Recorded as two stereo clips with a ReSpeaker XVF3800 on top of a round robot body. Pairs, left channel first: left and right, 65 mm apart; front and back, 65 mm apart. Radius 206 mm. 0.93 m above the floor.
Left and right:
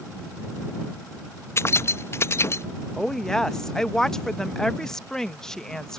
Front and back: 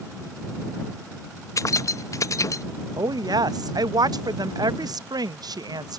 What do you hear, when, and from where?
1.6 s keys jangling: 40° left
3.0 s a woman speaking: 175° left